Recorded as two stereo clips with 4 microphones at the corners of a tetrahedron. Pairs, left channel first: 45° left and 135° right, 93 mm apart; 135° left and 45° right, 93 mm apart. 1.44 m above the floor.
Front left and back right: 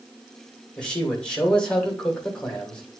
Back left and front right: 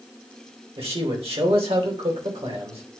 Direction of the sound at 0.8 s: 35° right.